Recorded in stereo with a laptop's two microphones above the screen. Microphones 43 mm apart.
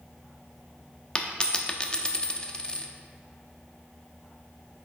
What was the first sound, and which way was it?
A dropped coin, 25° left (ahead or behind).